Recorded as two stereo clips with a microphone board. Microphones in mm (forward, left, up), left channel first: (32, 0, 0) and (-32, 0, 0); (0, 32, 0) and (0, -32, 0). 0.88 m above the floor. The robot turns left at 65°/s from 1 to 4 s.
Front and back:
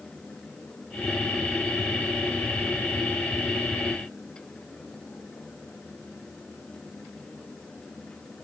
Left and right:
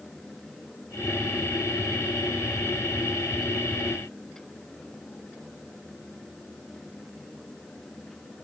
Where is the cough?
No cough in this recording.